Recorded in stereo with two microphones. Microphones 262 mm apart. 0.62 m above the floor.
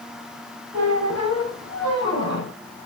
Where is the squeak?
75° left (ahead or behind), 2 m.